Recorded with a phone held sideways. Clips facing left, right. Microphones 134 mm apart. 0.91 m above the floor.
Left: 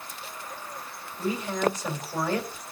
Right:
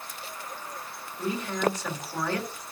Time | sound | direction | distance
1.2 | a woman speaking | 15° left (ahead or behind) | 2.5 m